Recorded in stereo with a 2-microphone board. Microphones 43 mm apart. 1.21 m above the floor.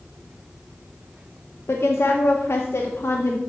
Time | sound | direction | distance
1.7 | a woman speaking | 85° left | 0.8 m